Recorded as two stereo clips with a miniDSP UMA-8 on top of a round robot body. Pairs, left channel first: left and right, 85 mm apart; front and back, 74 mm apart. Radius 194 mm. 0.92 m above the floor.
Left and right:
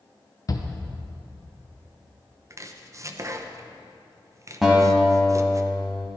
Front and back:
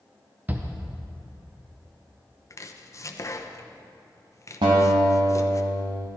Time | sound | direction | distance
0.5 | a shout | 120° left | 1.1 m
2.5 | chopping | 40° right | 1.0 m
4.6 | a guitar | 175° right | 1.1 m